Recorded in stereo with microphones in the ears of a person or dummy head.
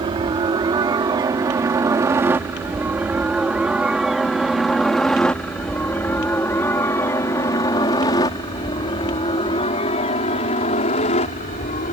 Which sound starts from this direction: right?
A helicopter, at 0.0 s.